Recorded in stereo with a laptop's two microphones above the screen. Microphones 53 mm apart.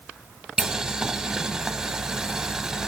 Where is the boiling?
15° right (ahead or behind), 0.9 m.